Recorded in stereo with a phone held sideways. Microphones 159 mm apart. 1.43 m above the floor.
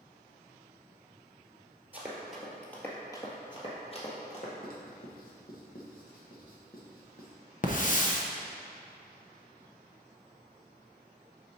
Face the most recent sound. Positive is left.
turn(degrees=50)  # may be behind; listen again after turning